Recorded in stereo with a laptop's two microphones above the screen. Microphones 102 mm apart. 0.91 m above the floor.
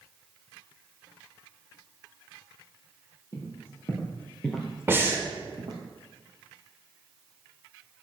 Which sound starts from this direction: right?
Breathing, at 4.9 s.